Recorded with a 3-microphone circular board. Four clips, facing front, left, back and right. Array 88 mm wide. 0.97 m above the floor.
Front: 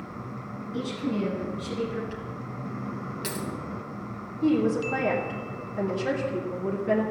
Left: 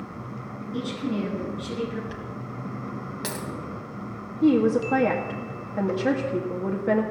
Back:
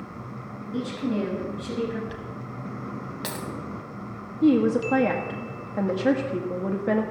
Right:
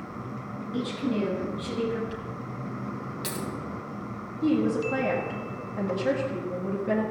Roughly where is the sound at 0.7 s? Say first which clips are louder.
Even, back 2 dB; behind.